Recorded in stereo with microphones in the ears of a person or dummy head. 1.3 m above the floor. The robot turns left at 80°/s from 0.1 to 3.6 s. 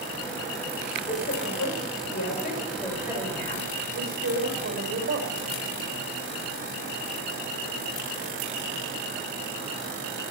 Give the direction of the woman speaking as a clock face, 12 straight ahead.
7 o'clock.